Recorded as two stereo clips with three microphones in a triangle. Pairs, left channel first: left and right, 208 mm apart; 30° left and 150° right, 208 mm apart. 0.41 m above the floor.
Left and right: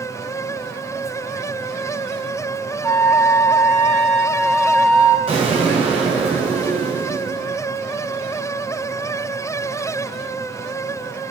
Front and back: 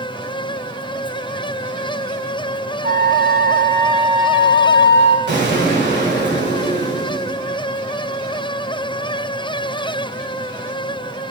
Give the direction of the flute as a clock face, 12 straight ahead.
6 o'clock.